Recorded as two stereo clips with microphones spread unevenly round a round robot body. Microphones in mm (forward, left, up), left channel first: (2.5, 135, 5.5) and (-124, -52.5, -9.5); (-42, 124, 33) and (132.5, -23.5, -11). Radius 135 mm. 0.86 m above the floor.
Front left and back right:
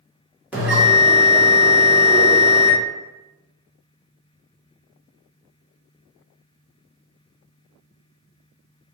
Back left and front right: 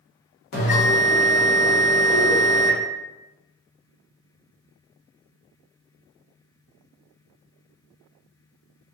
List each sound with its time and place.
0.5 s a bell: 155° left, 1.8 m